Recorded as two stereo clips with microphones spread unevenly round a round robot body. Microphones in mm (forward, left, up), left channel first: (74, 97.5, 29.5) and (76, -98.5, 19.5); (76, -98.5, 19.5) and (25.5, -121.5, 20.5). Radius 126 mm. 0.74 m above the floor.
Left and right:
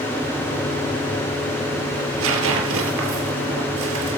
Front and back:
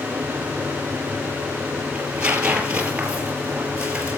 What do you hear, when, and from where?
1.9 s tearing paper: 85° right, 2.5 m